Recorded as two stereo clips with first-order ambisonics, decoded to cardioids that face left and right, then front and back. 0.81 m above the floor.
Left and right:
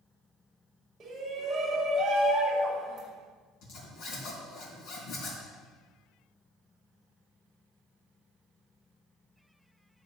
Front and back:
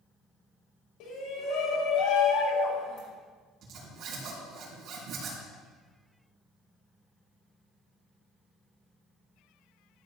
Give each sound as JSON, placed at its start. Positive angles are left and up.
{"t": 1.0, "sound": "a shout", "azimuth_deg": -20, "distance_m": 3.0}
{"t": 3.6, "sound": "a zipper", "azimuth_deg": 130, "distance_m": 3.5}